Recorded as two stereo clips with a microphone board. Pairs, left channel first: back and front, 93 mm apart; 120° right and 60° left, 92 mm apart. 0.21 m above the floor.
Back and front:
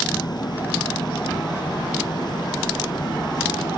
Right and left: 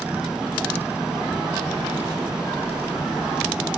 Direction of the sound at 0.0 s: 140° left.